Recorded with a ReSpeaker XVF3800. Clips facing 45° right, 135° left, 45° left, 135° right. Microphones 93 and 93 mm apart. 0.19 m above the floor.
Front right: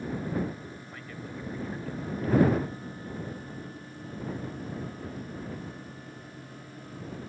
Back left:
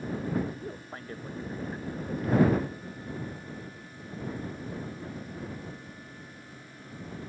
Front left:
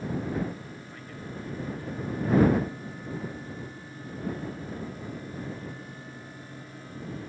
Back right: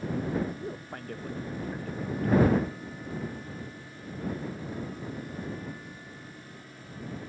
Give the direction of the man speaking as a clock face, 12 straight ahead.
6 o'clock.